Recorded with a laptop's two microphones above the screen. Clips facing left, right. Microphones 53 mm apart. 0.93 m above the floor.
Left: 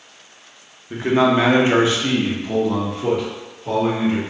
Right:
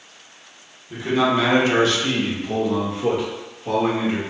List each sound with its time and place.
0.9 s a man speaking: 40° left (ahead or behind), 0.7 m; by 4.2 s 20° right (ahead or behind), 1.5 m